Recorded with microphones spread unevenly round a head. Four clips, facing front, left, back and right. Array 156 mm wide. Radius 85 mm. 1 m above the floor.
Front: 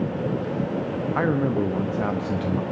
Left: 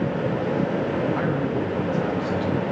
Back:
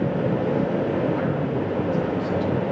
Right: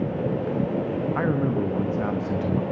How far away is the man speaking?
About 1.0 m.